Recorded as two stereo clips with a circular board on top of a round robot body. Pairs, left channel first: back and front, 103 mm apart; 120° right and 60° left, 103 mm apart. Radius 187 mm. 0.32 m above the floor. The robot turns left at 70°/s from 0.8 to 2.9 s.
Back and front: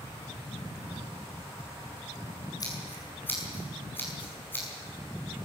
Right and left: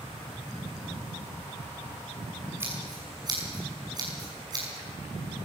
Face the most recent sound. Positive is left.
turn(degrees=110)